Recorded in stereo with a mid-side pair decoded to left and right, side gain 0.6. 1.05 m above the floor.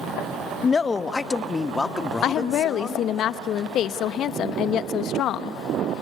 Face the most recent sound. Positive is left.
turn(degrees=55)